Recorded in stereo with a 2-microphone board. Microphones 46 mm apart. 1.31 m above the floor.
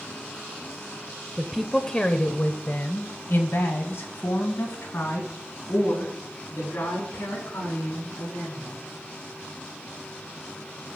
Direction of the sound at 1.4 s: 15° right (ahead or behind).